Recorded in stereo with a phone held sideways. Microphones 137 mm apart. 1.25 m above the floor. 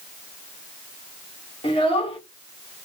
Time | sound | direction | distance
1.6 | a child speaking | 40° left (ahead or behind) | 1.3 m